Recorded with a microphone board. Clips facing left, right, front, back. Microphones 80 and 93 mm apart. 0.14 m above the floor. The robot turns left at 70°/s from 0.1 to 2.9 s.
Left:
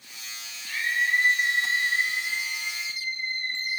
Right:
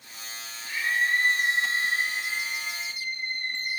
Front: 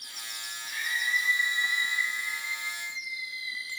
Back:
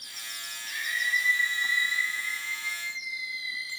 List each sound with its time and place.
0.7 s a scream: 160° right, 4.5 m; by 3.8 s 45° left, 4.5 m